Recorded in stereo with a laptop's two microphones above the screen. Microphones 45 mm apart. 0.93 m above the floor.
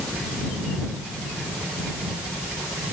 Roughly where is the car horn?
No car horn in this recording.